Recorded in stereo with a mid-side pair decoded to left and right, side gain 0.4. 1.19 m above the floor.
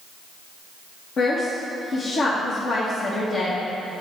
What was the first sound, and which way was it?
A woman speaking, 65° left.